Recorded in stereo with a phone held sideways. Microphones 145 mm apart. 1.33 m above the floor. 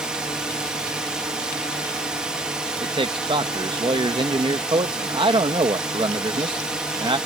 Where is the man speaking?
35° right (ahead or behind).